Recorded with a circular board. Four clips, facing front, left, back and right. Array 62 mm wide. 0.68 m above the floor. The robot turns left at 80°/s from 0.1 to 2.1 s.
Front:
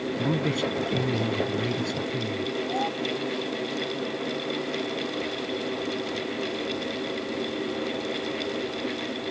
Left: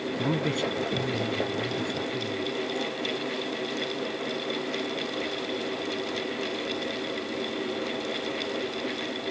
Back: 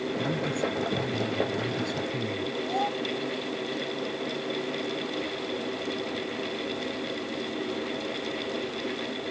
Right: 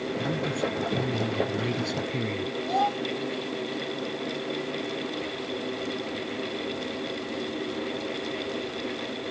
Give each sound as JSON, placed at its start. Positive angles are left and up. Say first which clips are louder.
{"t": 0.2, "sound": "a man speaking", "louder": "left 3 dB, front 4 dB", "azimuth_deg": 65}
{"t": 2.7, "sound": "a child speaking", "louder": "right 6 dB, back 2 dB", "azimuth_deg": -90}